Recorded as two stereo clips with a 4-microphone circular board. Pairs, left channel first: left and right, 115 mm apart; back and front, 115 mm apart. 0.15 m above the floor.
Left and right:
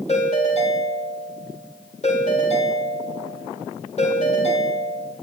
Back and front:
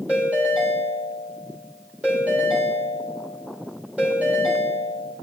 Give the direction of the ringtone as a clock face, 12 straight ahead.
9 o'clock.